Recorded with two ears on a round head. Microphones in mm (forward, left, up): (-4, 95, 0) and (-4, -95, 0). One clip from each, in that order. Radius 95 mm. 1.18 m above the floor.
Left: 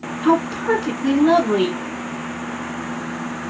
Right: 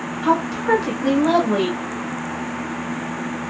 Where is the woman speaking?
5° right (ahead or behind), 1.3 m.